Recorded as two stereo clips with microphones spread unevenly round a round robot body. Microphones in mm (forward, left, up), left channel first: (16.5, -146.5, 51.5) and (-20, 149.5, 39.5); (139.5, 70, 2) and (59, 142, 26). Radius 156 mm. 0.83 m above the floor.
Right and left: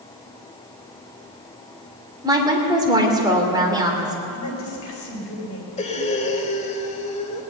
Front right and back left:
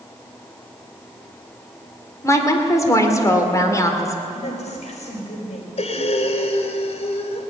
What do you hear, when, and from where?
2.2 s a woman speaking: 20° left, 2.5 m
4.3 s a woman speaking: 35° right, 4 m
5.8 s breathing: 15° right, 1.4 m